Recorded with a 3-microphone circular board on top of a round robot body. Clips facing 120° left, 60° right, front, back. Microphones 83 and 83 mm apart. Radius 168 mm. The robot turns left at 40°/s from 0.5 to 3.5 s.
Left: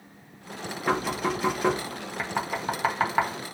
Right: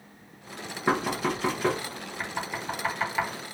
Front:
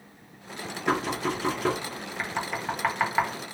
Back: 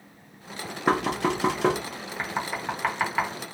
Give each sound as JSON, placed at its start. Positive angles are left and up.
{"t": 0.9, "sound": "knocking", "azimuth_deg": -135, "distance_m": 0.6}
{"t": 2.2, "sound": "knocking", "azimuth_deg": 115, "distance_m": 0.7}